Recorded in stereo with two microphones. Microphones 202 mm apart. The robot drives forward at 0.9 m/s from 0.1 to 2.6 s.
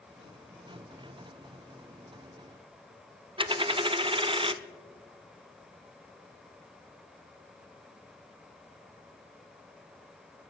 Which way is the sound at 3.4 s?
25° right (ahead or behind).